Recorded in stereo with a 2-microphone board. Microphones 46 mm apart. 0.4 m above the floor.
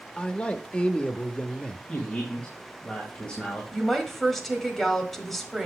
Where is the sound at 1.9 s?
20° left (ahead or behind), 2 m.